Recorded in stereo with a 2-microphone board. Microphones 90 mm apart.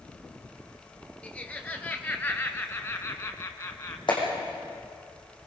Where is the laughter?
15° left (ahead or behind), 3 m; by 4.0 s 35° left (ahead or behind), 1.6 m.